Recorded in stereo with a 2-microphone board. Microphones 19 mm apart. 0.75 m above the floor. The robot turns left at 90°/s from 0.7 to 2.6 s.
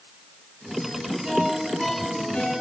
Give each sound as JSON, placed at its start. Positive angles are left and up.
{"t": 1.2, "sound": "a ringtone", "azimuth_deg": -140, "distance_m": 5.5}